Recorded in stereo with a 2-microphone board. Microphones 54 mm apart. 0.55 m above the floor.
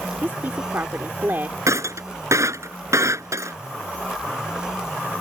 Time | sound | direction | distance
0.2 | a woman speaking | 50° right (ahead or behind) | ?
1.7 | breaking glass | 80° right | ?